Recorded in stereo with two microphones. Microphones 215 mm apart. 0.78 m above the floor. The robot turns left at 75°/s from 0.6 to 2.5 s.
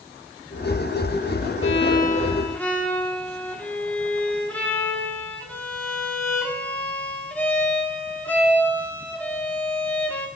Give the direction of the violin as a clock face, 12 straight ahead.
10 o'clock.